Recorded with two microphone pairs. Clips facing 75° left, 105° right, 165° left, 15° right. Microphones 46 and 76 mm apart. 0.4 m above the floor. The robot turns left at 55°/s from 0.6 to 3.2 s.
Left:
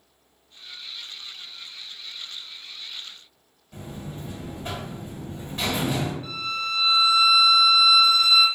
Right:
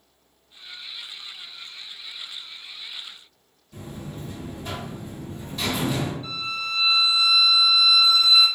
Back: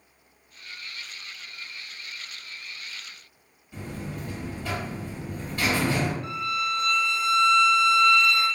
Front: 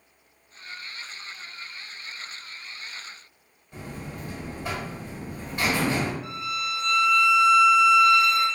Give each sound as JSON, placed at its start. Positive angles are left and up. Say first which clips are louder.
{"t": 3.7, "sound": "a buzzer", "louder": "even, back 2 dB", "azimuth_deg": 40, "distance_m": 1.9}
{"t": 6.2, "sound": "a violin", "louder": "left 1 dB, back 3 dB", "azimuth_deg": 55, "distance_m": 1.7}